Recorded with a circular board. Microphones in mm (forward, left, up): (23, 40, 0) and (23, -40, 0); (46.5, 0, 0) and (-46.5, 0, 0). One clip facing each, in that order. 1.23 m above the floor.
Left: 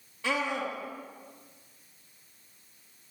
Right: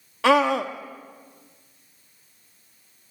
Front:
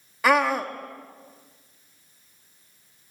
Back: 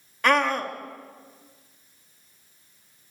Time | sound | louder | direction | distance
0.2 | a scream | right 12 dB, front 1 dB | 85° right | 2.5 m